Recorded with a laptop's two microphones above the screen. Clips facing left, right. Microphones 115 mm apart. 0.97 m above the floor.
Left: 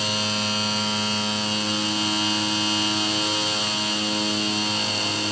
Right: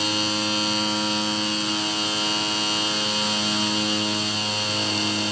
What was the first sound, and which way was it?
Only background noise.